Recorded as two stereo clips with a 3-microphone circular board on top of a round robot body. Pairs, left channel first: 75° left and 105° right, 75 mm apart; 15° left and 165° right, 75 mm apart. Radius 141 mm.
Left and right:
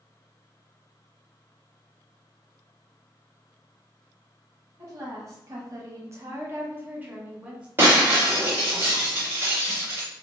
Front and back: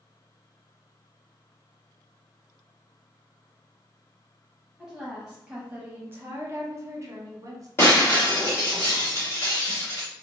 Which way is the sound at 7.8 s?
45° right.